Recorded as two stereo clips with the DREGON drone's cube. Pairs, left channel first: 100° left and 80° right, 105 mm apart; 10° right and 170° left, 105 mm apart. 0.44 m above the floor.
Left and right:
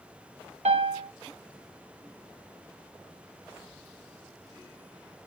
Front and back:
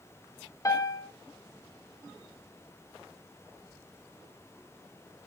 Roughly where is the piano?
Right.